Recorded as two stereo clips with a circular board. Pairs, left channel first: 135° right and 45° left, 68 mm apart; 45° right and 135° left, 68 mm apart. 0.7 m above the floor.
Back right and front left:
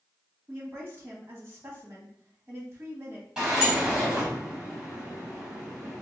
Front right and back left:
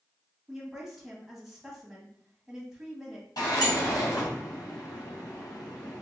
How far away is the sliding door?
About 1.8 m.